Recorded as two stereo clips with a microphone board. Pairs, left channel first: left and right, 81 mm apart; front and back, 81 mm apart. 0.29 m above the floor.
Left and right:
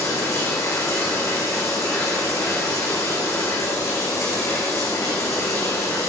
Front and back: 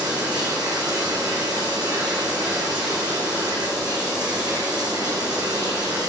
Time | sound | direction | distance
0.0 | running water | 145° left | 4 m